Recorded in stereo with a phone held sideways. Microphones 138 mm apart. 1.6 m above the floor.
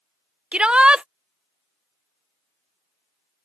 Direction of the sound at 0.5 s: 5° right (ahead or behind).